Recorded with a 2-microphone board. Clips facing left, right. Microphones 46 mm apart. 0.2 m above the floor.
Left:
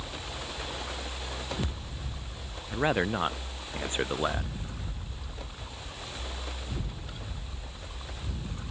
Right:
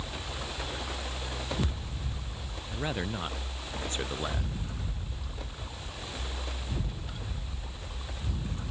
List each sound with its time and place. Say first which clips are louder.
2.7 s a man speaking: left 7 dB; 35° left (ahead or behind); by 4.5 s 25° left (ahead or behind)